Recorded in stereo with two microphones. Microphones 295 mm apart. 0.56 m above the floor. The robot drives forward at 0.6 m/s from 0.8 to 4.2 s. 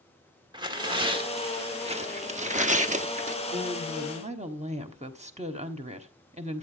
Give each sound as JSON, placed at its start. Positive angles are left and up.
{"t": 0.5, "sound": "tearing paper", "side_deg": -15, "distance_m": 1.6}
{"t": 3.5, "sound": "a woman speaking", "side_deg": -25, "distance_m": 1.1}